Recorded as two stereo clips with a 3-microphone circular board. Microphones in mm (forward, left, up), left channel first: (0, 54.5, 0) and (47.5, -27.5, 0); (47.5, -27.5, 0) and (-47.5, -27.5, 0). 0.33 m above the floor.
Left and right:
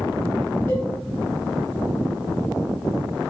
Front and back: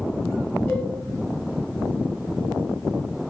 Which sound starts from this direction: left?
A cowbell, at 0.7 s.